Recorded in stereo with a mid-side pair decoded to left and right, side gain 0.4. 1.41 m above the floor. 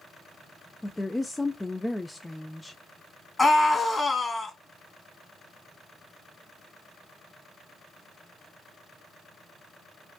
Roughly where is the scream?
Ahead left.